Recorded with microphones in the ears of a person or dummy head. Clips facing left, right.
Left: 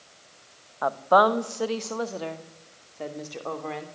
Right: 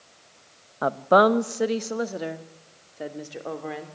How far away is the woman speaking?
About 0.7 m.